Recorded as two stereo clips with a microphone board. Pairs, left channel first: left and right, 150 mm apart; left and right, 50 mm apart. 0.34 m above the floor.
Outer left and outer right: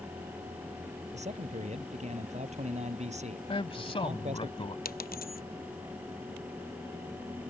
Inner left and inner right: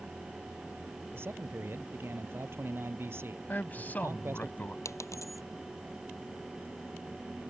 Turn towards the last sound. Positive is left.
turn(degrees=80)